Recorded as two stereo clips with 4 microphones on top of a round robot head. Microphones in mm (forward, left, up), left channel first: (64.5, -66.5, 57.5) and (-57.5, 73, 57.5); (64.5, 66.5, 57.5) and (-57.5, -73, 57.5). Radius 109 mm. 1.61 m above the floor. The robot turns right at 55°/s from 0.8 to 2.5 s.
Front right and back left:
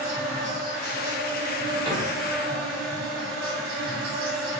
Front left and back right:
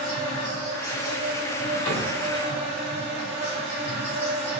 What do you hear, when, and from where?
0.0 s an insect: 55° left, 2.0 m; by 4.6 s 145° left, 2.0 m
1.9 s a cupboard door: 65° left, 1.8 m; by 2.1 s 75° left, 1.8 m